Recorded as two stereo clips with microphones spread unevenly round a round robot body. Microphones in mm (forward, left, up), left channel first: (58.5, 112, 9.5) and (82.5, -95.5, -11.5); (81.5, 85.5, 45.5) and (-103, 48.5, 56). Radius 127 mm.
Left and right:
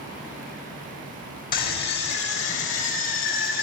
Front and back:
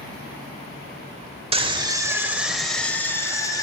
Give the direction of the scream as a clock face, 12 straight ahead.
7 o'clock.